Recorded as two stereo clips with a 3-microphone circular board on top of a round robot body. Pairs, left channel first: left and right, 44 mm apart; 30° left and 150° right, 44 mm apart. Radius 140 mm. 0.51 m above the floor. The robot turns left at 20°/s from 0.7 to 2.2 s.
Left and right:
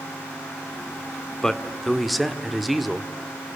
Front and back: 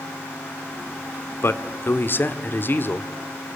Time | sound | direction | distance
1.4 | a man speaking | 10° left | 1.8 m